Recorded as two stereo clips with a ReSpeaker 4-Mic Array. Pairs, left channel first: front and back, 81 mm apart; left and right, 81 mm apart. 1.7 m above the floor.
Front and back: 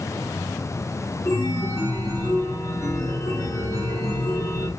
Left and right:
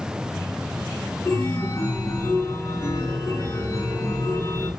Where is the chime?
40° left, 0.9 m.